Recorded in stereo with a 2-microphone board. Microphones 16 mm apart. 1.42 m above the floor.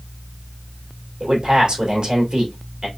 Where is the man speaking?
50° right (ahead or behind), 2.5 m.